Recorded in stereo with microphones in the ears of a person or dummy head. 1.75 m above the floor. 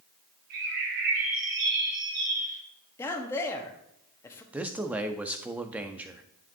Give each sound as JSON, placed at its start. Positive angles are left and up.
{"t": 0.5, "sound": "a bird", "side_deg": -45, "distance_m": 1.7}
{"t": 3.0, "sound": "a man speaking", "side_deg": 15, "distance_m": 1.1}
{"t": 4.5, "sound": "a man speaking", "side_deg": -10, "distance_m": 0.6}